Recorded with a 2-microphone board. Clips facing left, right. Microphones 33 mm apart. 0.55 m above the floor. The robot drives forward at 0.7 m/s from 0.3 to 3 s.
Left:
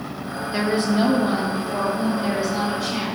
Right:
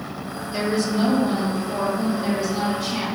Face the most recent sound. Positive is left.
turn(degrees=10)  # may be behind; listen again after turning